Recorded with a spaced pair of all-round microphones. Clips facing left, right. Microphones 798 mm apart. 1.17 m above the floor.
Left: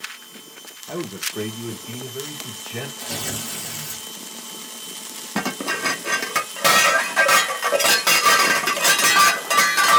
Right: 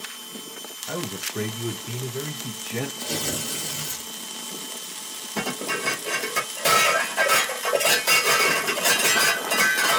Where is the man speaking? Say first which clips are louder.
Left 2 dB; 25° right (ahead or behind), 0.9 m; by 2.9 s 60° right (ahead or behind), 1.6 m.